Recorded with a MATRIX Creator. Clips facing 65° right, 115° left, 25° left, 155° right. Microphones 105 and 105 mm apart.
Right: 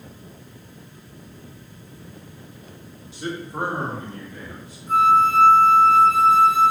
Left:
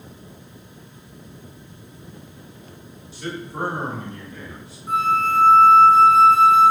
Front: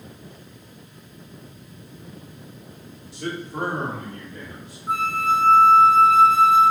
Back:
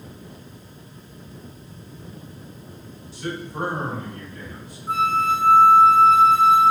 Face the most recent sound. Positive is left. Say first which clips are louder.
# right 4 dB, back 1 dB
turn(degrees=95)